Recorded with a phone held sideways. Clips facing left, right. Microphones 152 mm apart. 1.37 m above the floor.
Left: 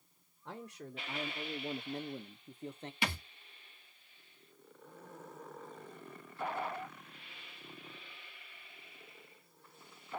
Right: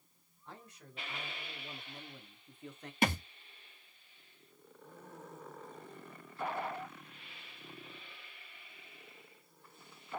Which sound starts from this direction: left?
A man speaking, at 0.5 s.